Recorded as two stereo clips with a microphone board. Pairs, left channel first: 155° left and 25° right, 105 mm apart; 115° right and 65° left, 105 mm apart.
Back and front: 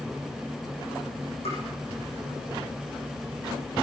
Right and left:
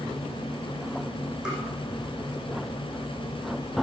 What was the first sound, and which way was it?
Tapping, 150° left.